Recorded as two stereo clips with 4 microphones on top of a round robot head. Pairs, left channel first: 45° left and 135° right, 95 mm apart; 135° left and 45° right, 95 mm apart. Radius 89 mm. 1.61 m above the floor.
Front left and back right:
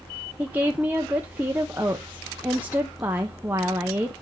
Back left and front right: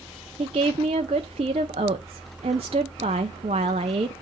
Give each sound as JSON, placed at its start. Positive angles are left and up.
{"t": 0.4, "sound": "a woman speaking", "azimuth_deg": -60, "distance_m": 0.6}